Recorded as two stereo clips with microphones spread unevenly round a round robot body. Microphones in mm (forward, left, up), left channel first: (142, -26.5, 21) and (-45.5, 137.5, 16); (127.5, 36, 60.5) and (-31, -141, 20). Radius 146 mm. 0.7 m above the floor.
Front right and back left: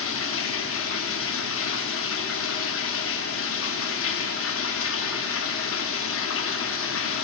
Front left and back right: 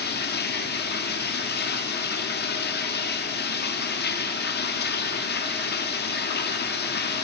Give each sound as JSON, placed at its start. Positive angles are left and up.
{"t": 0.0, "sound": "running water", "azimuth_deg": -5, "distance_m": 0.8}